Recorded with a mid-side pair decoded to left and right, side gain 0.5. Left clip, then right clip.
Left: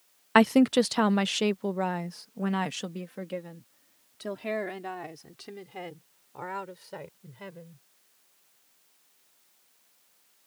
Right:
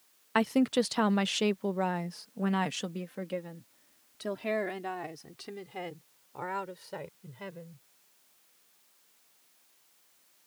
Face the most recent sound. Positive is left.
turn(degrees=-5)